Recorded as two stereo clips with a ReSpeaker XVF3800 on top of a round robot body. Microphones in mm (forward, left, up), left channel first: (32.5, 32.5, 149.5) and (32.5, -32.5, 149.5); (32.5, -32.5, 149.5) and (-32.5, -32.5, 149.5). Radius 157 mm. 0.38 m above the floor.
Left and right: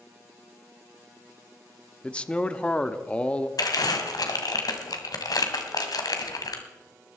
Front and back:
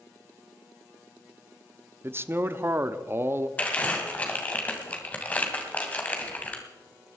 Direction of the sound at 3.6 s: 70° left.